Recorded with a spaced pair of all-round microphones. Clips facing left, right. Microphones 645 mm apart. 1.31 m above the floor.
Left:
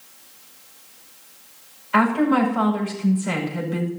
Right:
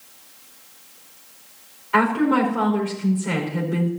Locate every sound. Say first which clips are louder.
1.9 s a woman speaking: left 1 dB; 65° right (ahead or behind), 5.5 m